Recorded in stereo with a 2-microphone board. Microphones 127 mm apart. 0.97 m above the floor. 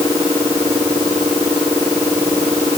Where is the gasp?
I don't hear a gasp.